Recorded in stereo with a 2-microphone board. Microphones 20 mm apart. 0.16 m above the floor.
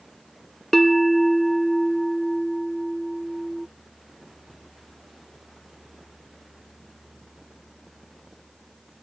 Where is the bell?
5° left (ahead or behind).